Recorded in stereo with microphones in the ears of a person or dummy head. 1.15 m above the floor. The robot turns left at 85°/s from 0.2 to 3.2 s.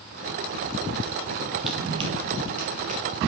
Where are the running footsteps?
Centre (ahead or behind), 2.5 m; by 3.0 s 25° right (ahead or behind), 1.5 m.